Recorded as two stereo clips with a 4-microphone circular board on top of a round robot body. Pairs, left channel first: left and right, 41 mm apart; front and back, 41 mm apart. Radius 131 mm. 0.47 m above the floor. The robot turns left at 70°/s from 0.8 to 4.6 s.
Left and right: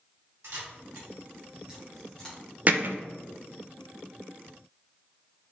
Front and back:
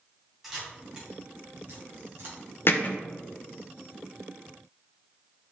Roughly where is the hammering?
Ahead right.